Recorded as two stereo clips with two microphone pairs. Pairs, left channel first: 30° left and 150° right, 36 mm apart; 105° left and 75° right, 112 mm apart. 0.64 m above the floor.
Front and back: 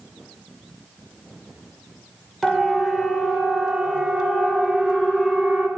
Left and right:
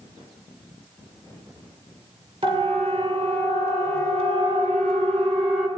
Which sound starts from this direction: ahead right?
A siren, at 2.4 s.